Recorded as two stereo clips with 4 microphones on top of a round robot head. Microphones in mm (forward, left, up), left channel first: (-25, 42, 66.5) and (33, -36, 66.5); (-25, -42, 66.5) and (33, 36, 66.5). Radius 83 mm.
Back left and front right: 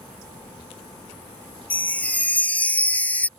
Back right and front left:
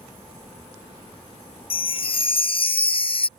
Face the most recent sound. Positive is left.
turn(degrees=-160)